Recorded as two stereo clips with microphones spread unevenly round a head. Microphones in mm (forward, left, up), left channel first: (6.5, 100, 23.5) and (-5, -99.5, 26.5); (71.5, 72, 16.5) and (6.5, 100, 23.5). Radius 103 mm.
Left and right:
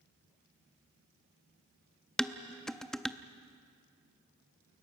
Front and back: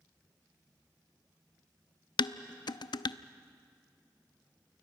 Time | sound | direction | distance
2.2 | dishes clattering | straight ahead | 0.6 m